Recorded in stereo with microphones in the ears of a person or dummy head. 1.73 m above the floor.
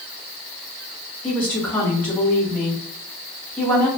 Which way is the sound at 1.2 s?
5° left (ahead or behind).